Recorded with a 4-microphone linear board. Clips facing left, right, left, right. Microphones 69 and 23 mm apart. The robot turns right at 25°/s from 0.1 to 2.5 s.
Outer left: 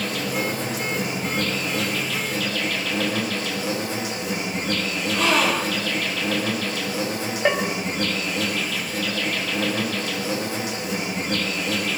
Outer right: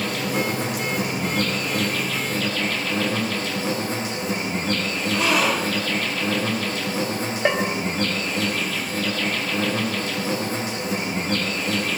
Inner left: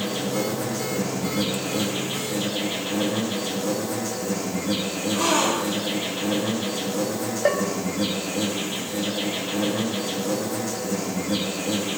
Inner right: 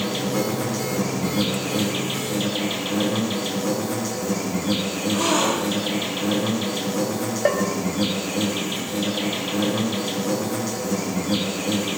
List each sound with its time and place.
0.0 s an insect: 105° right, 6.5 m; by 12.0 s 45° right, 6.5 m
5.1 s a gasp: 10° right (ahead or behind), 6.5 m
7.5 s a bell: 5° right (ahead or behind), 1.4 m